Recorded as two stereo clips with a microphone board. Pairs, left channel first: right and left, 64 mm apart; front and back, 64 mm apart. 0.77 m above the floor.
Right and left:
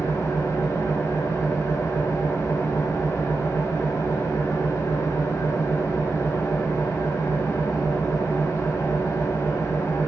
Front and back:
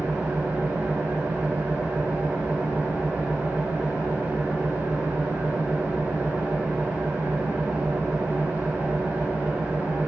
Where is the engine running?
125° right, 3 m.